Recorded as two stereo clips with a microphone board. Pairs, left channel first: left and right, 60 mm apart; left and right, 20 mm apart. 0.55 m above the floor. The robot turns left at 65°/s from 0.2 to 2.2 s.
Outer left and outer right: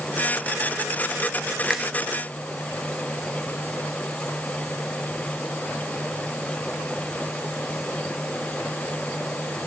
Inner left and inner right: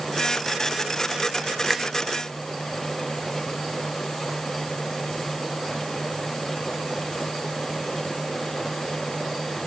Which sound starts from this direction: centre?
A finger snap, at 1.7 s.